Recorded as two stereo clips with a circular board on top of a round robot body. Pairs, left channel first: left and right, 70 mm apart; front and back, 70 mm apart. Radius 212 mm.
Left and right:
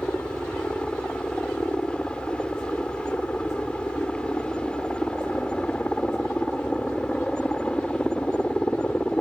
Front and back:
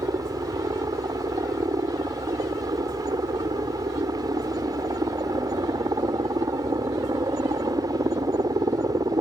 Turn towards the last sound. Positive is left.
turn(degrees=165)